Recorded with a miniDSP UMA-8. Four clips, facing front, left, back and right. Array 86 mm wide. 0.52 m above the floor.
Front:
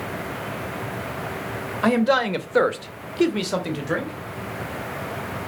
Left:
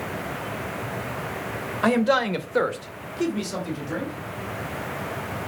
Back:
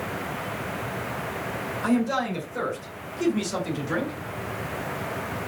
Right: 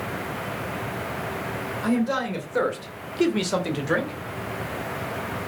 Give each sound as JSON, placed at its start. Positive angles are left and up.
{"t": 1.8, "sound": "a man speaking", "azimuth_deg": 45, "distance_m": 2.5}